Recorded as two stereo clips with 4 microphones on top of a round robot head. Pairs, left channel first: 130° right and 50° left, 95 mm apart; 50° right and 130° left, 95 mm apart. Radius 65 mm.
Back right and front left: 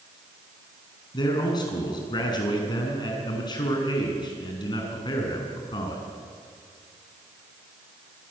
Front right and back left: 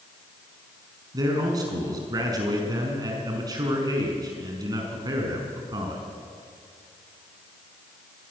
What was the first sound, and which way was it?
A man speaking, 175° right.